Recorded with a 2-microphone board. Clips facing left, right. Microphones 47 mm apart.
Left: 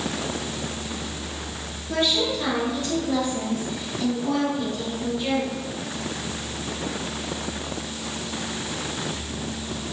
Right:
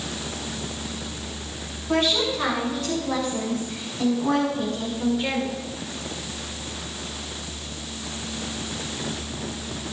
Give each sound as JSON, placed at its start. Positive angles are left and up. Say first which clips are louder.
{"t": 1.9, "sound": "a woman speaking", "louder": "right 1 dB", "side_deg": -65, "distance_m": 3.5}